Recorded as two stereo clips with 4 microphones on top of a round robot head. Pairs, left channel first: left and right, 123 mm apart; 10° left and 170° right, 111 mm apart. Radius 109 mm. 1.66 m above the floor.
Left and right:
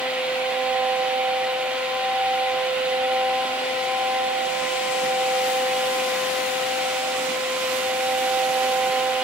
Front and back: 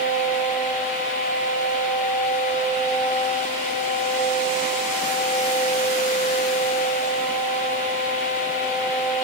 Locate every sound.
Only background noise.